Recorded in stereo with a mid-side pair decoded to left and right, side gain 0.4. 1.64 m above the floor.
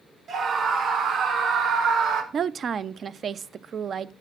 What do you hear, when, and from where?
0.3 s a scream: 65° right, 4 m; by 2.2 s 80° right, 2 m
2.3 s a woman speaking: 60° right, 0.6 m